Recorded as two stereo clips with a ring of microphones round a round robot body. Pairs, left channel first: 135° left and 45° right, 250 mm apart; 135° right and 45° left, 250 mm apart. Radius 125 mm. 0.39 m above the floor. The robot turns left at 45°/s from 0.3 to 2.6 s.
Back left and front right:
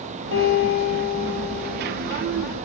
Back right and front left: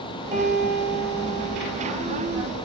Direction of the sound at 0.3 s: 110° left.